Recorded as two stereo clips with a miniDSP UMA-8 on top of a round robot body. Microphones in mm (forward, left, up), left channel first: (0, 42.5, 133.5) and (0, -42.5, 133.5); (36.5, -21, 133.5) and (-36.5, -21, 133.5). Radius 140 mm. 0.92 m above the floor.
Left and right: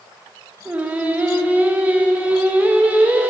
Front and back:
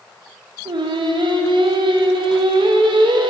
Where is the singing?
165° right, 0.8 m.